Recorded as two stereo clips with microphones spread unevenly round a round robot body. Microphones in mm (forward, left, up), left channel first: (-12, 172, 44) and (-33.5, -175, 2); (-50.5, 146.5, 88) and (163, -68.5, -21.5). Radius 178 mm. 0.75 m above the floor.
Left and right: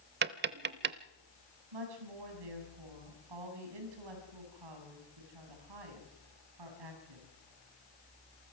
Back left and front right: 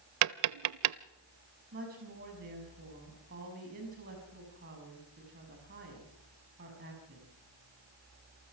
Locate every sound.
0.2 s tapping: 50° right, 0.5 m
1.7 s a woman speaking: 105° right, 6 m